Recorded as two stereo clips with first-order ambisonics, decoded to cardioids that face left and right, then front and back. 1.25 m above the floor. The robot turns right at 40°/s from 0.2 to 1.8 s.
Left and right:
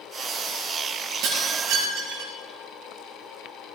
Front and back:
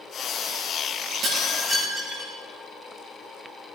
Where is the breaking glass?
130° right, 6 m; by 2.3 s 105° right, 6 m.